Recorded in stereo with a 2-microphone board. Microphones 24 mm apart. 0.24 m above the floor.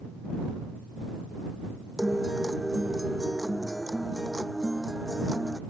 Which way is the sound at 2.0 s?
20° right (ahead or behind).